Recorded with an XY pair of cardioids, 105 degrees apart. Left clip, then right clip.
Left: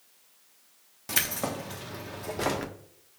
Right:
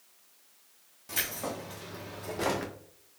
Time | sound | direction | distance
1.1 | keys jangling | 60° left | 1.0 m